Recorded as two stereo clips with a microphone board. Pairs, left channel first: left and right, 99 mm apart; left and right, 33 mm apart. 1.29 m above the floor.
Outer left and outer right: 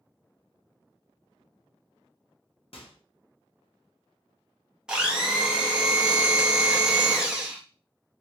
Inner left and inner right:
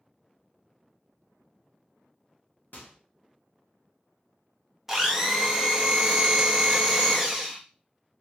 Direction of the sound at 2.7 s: 70° left (ahead or behind).